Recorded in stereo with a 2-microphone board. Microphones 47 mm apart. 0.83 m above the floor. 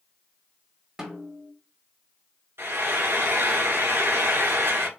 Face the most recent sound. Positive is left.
turn(degrees=-70)  # may be behind; listen again after turning